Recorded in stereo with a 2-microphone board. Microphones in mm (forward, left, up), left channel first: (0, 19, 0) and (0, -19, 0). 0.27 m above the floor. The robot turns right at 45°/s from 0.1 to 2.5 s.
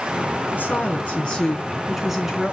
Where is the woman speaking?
110° left, 2.5 m; by 2.5 s 160° right, 2.5 m.